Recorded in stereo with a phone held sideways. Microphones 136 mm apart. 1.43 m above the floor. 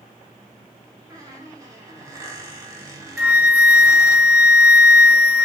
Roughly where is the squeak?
Right.